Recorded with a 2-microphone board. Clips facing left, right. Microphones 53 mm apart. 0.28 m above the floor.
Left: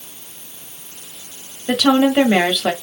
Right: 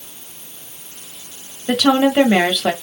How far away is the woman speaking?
About 1.0 m.